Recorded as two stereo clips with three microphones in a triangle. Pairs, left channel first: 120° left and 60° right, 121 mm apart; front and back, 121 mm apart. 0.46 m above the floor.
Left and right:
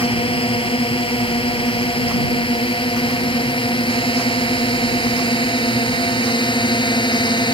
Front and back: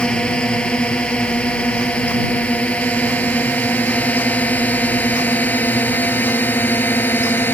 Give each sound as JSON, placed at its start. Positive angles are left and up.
{"t": 0.0, "sound": "a drone", "azimuth_deg": 80}